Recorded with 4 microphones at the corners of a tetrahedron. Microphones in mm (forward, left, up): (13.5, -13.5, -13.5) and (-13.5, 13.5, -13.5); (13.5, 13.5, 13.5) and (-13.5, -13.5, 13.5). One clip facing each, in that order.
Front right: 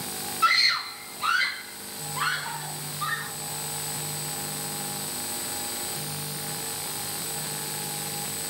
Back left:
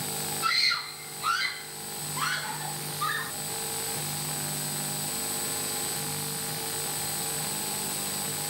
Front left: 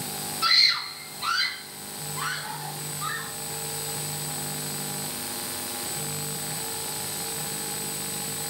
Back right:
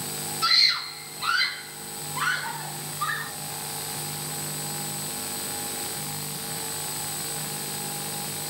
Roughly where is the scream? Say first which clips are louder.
Front right 5 dB, even; ahead right.